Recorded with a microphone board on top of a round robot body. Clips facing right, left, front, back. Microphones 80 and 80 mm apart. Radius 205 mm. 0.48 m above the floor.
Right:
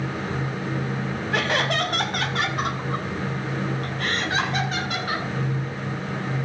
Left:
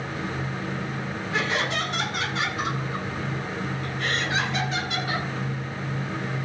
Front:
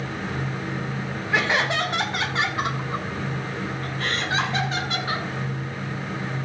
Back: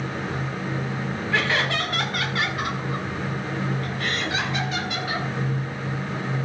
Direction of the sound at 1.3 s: 75° right.